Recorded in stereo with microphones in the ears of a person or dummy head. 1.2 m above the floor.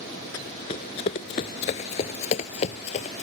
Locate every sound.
0.3 s running footsteps: 15° left (ahead or behind); by 3.2 s 40° left (ahead or behind)